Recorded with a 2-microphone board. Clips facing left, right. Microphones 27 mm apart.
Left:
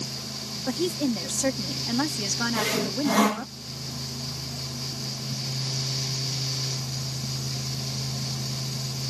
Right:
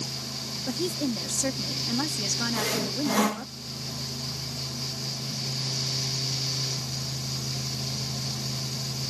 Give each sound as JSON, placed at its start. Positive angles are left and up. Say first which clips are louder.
{"t": 0.7, "sound": "a woman speaking", "louder": "left 3 dB", "side_deg": 15}
{"t": 2.5, "sound": "sawing", "louder": "left 2 dB", "side_deg": 15}